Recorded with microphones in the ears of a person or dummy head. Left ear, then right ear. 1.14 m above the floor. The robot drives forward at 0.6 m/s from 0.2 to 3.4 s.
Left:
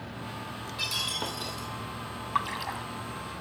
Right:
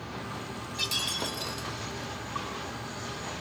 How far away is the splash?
About 1.3 m.